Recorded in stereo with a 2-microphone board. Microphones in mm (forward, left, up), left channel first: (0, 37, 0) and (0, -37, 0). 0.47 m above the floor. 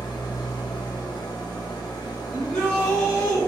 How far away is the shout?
About 1.2 m.